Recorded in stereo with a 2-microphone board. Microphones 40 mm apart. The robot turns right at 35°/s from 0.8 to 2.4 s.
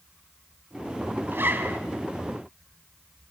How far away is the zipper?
About 2.5 m.